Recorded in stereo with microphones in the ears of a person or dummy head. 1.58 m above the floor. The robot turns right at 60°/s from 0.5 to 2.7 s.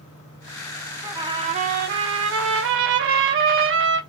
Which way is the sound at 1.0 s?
170° right.